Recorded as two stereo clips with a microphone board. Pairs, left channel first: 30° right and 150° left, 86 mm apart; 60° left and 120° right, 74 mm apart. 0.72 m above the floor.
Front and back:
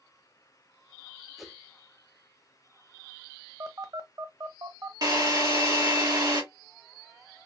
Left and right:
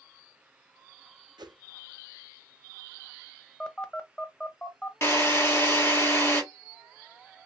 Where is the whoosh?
120° right, 0.7 m.